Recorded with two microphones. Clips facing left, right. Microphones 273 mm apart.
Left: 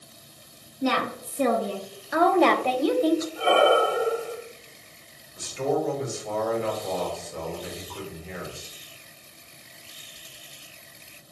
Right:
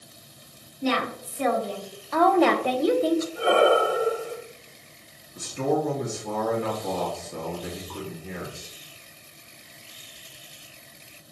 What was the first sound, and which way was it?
A woman speaking, 60° left (ahead or behind).